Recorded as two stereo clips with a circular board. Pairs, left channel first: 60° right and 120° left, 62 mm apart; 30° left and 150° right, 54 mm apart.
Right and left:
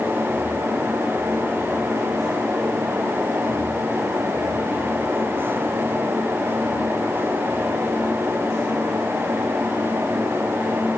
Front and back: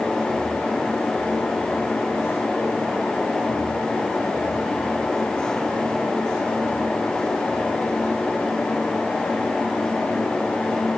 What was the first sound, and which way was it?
Only background noise.